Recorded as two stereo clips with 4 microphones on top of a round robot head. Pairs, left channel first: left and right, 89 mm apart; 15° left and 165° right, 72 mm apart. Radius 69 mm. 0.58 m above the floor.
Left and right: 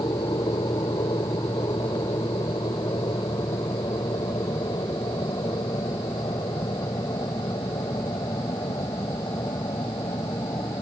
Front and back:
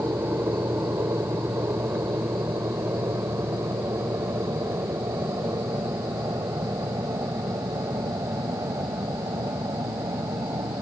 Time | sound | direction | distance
0.0 | an aircraft | 140° left | ?